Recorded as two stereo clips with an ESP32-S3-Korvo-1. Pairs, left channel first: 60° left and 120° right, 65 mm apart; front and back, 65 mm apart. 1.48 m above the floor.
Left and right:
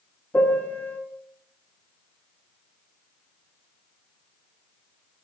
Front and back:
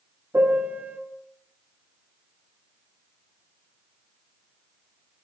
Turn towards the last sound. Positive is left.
turn(degrees=120)